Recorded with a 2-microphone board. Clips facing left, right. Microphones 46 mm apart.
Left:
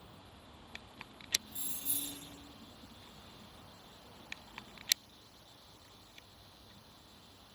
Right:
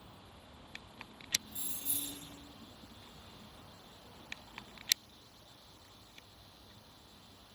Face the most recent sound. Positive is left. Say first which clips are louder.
# even
turn(degrees=-10)  # may be behind; listen again after turning